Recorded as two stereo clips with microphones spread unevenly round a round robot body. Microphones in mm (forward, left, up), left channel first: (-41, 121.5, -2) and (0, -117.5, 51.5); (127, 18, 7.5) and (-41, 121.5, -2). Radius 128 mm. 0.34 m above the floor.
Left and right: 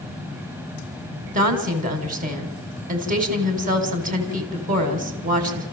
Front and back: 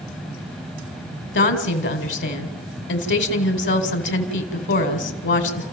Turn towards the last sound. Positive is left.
turn(degrees=-15)